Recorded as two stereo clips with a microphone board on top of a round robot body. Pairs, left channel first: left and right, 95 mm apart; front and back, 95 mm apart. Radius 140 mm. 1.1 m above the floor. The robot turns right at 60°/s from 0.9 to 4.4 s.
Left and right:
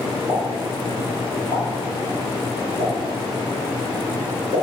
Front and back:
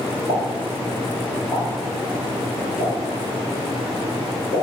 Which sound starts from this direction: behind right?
A pop, at 0.3 s.